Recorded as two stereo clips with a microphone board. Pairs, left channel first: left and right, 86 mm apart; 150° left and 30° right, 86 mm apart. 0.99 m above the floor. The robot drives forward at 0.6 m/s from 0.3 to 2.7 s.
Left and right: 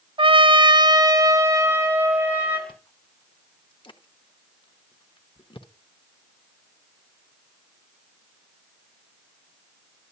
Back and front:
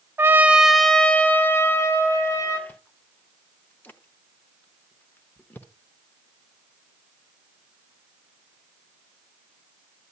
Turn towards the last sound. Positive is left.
turn(degrees=80)